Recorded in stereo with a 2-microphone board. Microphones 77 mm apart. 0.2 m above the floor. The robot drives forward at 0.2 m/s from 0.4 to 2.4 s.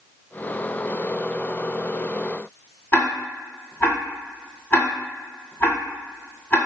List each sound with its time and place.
2.9 s ticking: 35° left (ahead or behind), 1.2 m